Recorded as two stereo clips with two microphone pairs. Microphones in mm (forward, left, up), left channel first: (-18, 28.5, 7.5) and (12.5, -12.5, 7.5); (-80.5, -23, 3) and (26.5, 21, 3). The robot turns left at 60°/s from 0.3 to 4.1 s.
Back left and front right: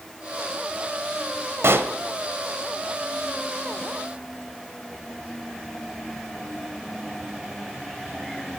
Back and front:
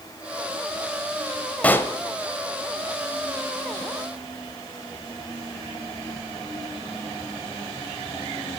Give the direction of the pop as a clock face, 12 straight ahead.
3 o'clock.